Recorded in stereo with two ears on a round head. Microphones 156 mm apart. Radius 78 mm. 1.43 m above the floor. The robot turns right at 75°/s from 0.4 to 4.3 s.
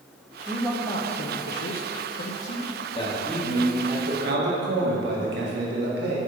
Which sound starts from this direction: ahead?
A man speaking, at 0.5 s.